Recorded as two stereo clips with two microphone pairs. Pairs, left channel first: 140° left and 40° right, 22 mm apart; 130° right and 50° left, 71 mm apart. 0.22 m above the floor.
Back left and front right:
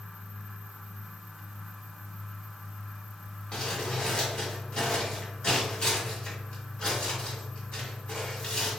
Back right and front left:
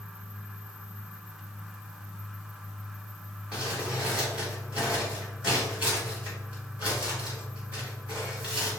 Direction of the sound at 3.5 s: 120° left.